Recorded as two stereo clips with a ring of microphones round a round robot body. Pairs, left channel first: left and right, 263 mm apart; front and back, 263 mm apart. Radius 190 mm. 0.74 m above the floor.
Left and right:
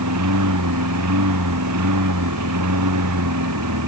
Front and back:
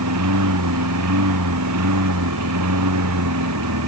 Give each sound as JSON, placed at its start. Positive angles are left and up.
{"t": 0.0, "sound": "a lawn mower", "azimuth_deg": -135}